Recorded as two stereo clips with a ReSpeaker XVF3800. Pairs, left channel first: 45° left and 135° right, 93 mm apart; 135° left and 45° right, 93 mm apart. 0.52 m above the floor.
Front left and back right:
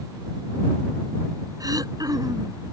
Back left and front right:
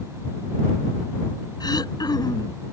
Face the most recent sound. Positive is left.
turn(degrees=175)